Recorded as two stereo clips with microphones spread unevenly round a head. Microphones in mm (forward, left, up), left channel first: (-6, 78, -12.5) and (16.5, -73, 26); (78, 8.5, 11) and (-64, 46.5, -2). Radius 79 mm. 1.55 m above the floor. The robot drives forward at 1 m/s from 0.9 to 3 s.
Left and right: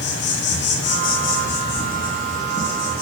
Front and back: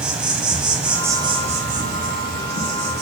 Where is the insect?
80° left, 0.8 m; by 3.0 s 160° left, 2 m.